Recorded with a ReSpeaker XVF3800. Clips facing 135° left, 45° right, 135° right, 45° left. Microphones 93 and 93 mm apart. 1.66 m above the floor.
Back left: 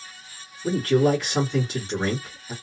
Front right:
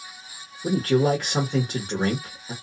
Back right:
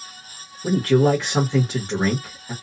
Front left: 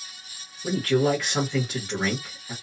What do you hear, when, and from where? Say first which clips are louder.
0.6 s a man speaking: back left 1 dB, back right 5 dB; 75° right, 1.3 m